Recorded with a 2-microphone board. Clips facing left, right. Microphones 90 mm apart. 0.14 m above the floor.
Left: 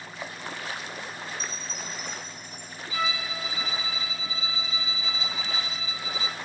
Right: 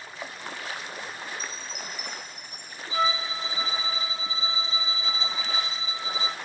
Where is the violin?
30° right (ahead or behind), 0.7 m.